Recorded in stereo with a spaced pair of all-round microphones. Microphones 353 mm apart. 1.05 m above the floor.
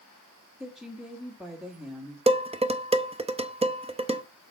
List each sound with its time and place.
0.6 s a woman speaking: centre (ahead or behind), 1.9 m
2.3 s dishes clattering: 15° right (ahead or behind), 0.6 m